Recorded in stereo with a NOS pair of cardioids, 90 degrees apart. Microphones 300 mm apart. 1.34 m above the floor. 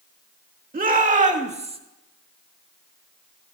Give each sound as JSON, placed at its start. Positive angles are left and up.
{"t": 0.7, "sound": "a shout", "azimuth_deg": -30, "distance_m": 2.5}